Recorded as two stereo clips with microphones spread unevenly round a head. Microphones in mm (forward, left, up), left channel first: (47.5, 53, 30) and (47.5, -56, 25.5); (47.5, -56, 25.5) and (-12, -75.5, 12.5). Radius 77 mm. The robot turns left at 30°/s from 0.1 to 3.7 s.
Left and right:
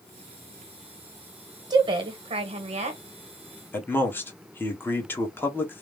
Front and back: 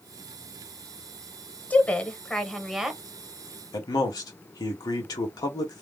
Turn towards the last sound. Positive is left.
turn(degrees=20)